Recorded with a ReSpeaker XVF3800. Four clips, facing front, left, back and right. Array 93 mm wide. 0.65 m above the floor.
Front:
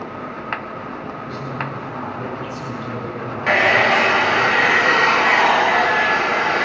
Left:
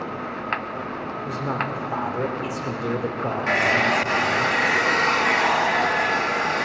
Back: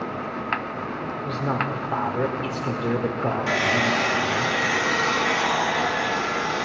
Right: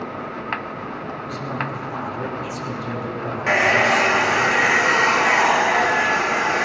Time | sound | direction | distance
1.2 | a man speaking | 150° left | 1.9 m
3.5 | a hair dryer | 15° right | 0.5 m